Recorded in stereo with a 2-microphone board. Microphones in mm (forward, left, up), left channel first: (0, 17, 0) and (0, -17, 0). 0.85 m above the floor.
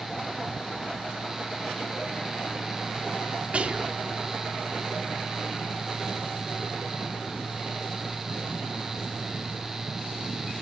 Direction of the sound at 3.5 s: 35° right (ahead or behind).